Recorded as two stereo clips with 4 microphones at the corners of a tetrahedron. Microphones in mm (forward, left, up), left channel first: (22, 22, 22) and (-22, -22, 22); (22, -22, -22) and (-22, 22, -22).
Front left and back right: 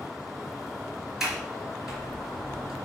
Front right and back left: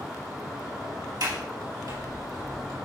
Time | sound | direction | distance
1.2 | a sliding door | 140° left | 3 m